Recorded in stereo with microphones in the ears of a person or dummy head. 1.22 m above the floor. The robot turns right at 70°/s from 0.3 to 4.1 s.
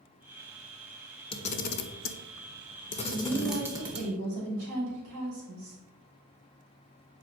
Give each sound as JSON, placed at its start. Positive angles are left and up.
{"t": 1.3, "sound": "a camera shutter", "side_deg": 25, "distance_m": 0.8}
{"t": 3.0, "sound": "a woman speaking", "azimuth_deg": 180, "distance_m": 3.5}